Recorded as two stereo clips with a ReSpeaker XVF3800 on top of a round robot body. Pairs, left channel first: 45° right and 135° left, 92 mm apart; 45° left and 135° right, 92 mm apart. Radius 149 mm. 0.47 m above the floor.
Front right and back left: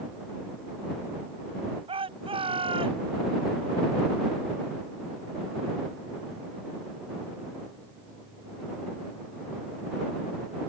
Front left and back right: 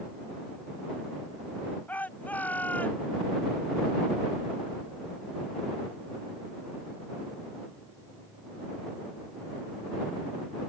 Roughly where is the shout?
Behind left.